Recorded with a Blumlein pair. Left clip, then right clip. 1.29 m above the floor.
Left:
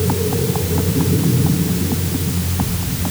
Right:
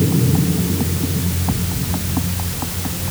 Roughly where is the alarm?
No alarm in this recording.